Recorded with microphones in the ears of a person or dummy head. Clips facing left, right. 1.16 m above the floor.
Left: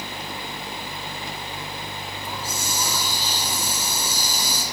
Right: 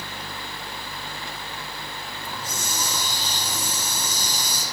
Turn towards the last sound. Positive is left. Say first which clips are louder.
# left 2 dB
turn(degrees=5)  # may be behind; listen again after turning